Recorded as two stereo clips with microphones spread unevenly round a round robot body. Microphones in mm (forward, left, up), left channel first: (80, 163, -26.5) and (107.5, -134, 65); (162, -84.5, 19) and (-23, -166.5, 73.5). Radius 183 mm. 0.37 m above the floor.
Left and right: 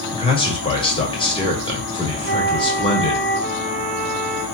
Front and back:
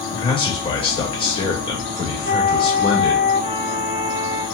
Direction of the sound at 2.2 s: 20° right.